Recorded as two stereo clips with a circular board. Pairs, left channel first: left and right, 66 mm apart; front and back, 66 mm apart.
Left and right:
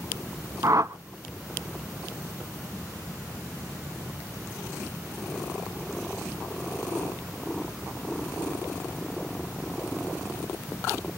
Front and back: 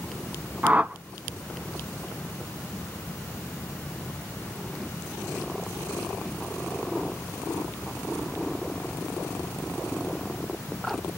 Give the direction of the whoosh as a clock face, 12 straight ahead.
4 o'clock.